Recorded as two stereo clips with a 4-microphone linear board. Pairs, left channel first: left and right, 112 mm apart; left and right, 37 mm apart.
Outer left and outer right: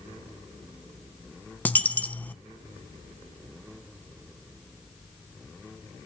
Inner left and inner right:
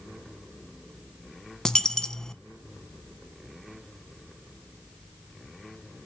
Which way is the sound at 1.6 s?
15° left (ahead or behind).